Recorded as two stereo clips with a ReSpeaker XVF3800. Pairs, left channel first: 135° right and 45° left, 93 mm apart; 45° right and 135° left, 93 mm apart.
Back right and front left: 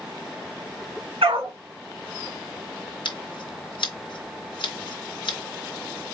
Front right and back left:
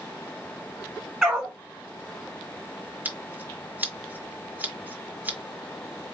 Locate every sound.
1.2 s a dog barking: 50° left, 1.9 m
3.0 s scissors: 155° right, 1.1 m